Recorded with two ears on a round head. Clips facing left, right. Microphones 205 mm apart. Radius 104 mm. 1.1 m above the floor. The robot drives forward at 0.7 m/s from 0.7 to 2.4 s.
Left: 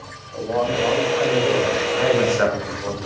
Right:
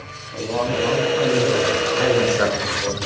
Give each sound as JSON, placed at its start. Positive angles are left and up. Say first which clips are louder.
{"t": 0.3, "sound": "a man speaking", "louder": "left 1 dB", "side_deg": -40, "distance_m": 3.0}
{"t": 2.0, "sound": "a man speaking", "louder": "even", "side_deg": -35, "distance_m": 4.0}